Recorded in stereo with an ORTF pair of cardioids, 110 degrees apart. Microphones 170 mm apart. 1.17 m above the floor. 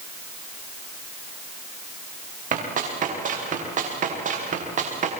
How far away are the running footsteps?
About 9.5 m.